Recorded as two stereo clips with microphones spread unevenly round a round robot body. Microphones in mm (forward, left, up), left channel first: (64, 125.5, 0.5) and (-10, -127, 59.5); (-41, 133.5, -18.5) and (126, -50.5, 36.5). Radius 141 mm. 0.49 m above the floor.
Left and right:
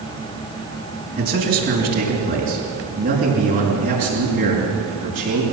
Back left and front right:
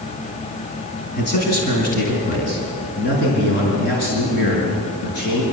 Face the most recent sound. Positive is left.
turn(degrees=-170)